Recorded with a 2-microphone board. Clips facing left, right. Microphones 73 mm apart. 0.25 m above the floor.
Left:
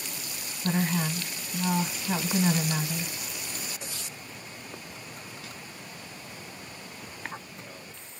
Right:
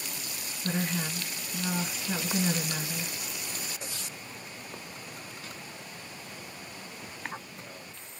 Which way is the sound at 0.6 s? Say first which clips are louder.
Left 4 dB; 55° left (ahead or behind).